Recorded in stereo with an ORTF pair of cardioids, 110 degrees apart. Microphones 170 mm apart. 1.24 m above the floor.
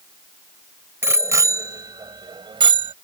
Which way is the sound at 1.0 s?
15° right.